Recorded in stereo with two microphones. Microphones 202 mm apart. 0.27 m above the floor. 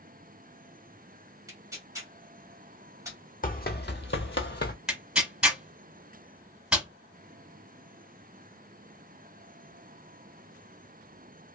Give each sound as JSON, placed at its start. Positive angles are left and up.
{"t": 1.5, "sound": "tearing paper", "side_deg": -15, "distance_m": 1.4}
{"t": 3.4, "sound": "running footsteps", "side_deg": 45, "distance_m": 0.8}
{"t": 4.9, "sound": "tearing paper", "side_deg": -5, "distance_m": 0.9}